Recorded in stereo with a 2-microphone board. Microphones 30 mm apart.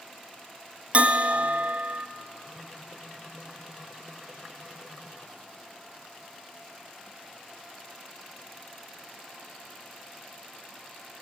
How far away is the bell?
About 0.5 m.